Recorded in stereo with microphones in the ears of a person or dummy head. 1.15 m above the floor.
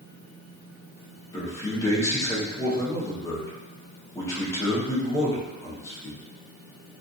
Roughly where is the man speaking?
Left.